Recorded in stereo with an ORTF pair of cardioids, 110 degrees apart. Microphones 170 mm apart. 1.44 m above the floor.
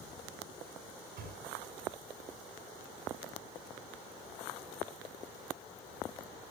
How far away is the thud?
About 6.5 m.